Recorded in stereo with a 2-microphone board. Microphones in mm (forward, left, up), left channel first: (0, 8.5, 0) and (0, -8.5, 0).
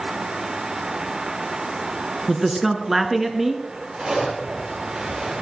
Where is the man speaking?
20° right (ahead or behind), 1.2 m.